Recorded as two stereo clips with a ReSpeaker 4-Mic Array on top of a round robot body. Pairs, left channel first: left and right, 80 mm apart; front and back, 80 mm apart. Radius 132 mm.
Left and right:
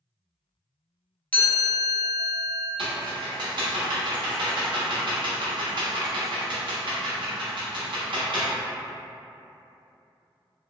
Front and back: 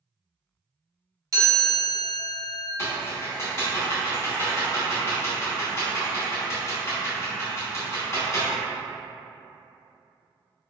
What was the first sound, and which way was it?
A chime, 150° left.